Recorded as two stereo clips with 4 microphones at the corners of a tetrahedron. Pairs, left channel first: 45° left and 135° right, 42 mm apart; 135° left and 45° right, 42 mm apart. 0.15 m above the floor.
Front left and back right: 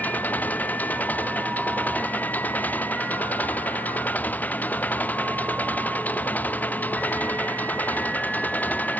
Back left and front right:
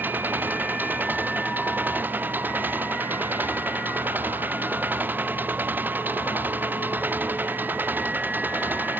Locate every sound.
0.0 s an engine running: 5° right